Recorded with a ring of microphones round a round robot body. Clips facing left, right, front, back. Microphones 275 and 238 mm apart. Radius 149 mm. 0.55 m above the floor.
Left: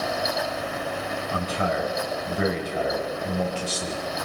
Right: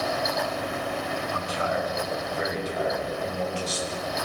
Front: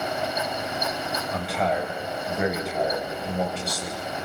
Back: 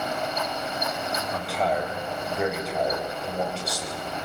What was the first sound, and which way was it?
A man speaking, 90° left.